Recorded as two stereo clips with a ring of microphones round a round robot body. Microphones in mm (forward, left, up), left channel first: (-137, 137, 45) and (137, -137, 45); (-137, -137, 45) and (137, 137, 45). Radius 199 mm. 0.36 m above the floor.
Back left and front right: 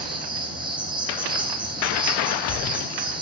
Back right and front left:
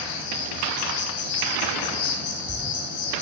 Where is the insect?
125° right, 6 m.